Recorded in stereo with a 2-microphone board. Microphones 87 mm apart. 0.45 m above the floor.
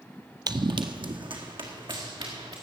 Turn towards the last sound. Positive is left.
turn(degrees=-75)  # may be behind; listen again after turning